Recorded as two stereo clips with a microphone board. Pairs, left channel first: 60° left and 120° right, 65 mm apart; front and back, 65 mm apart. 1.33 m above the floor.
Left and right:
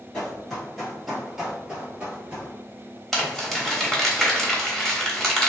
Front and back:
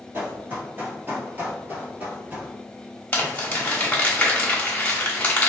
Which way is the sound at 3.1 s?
25° right.